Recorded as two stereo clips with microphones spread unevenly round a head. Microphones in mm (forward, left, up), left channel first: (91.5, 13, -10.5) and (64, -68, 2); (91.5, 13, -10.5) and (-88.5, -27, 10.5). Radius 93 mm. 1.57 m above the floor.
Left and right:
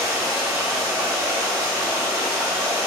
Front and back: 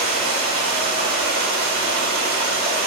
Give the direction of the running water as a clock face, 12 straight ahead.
5 o'clock.